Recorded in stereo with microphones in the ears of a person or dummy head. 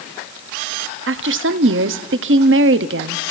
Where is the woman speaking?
55° right (ahead or behind), 0.7 m.